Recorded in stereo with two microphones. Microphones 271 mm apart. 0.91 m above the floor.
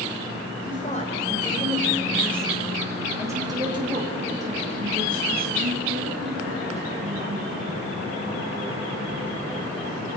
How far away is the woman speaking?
About 4 m.